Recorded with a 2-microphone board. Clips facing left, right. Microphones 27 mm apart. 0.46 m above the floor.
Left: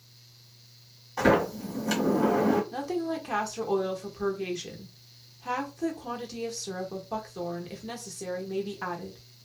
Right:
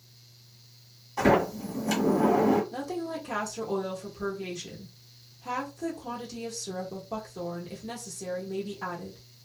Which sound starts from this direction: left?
A woman speaking, at 2.7 s.